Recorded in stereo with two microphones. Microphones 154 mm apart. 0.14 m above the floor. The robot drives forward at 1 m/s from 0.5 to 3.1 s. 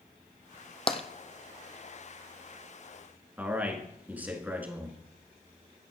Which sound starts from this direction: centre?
A man speaking, at 3.4 s.